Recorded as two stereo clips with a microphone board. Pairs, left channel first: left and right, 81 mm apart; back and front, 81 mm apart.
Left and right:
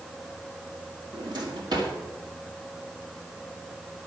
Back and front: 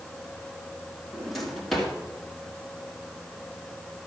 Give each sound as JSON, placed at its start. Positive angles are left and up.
{"t": 1.1, "sound": "a drawer", "azimuth_deg": -95, "distance_m": 2.0}